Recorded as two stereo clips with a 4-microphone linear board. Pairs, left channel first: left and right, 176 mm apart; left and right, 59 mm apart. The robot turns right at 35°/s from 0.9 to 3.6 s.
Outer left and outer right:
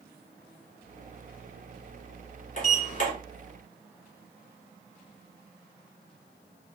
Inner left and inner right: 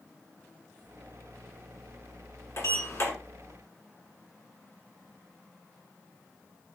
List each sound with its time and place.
2.6 s a sliding door: 50° left (ahead or behind), 1.5 m; by 3.1 s 45° left (ahead or behind), 1.5 m